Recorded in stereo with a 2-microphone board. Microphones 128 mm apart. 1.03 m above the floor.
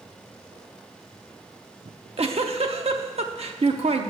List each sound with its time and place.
1.9 s a giggle: 55° right (ahead or behind), 0.8 m